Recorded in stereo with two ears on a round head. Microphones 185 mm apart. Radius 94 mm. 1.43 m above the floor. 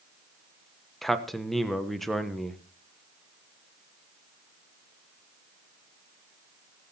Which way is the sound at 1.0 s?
Centre (ahead or behind).